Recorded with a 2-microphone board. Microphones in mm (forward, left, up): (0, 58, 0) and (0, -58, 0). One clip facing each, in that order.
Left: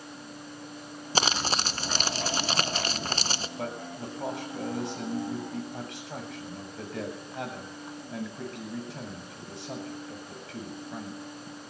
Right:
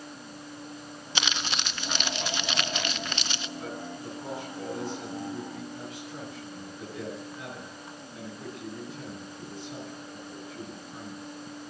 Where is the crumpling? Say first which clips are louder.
Left 5 dB; 40° left (ahead or behind), 0.7 m.